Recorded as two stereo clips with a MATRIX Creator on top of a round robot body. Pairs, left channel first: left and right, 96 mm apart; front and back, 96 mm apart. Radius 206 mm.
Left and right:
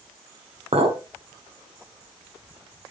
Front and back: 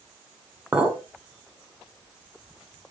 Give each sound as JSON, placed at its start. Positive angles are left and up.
{"t": 0.7, "sound": "a clink", "azimuth_deg": -100, "distance_m": 1.3}